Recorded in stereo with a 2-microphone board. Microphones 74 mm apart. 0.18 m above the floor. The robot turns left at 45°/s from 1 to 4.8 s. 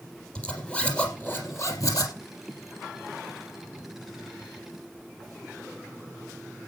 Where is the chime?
No chime in this recording.